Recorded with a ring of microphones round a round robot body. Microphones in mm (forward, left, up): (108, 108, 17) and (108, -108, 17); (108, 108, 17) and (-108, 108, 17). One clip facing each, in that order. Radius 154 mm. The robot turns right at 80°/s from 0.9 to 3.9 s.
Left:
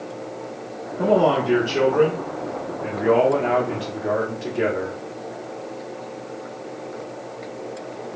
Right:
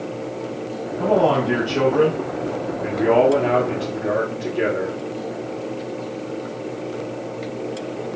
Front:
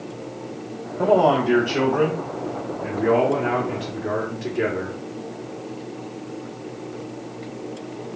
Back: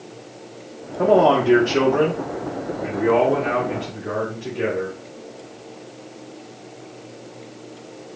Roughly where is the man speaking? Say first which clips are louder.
Even, back 2 dB; left.